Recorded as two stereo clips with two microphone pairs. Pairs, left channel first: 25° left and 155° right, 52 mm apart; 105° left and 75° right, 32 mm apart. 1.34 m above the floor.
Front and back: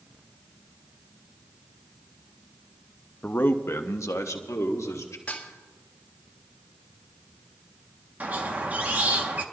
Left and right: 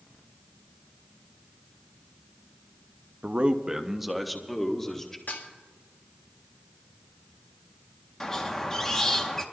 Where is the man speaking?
30° right, 0.6 m; by 5.2 s 25° left, 1.7 m.